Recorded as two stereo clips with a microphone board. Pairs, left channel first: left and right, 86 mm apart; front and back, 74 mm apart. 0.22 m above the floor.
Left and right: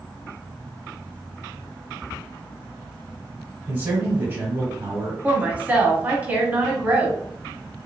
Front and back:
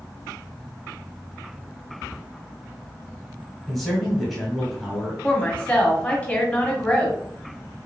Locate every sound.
3.7 s a man speaking: 80° right, 1.5 m
5.2 s a woman speaking: 50° right, 1.4 m